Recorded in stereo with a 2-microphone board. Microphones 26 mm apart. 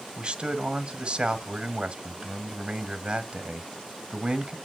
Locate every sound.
0.2 s a man speaking: 40° right (ahead or behind), 1.6 m